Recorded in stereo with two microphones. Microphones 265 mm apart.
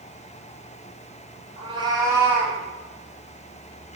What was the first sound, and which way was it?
A cat meowing, 20° right (ahead or behind).